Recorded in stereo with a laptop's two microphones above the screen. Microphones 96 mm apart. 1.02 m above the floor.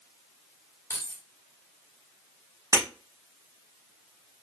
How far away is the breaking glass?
About 1.0 m.